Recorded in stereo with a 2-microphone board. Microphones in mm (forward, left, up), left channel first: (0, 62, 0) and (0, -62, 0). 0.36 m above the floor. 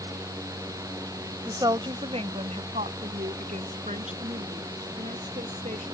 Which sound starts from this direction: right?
A woman speaking, at 1.4 s.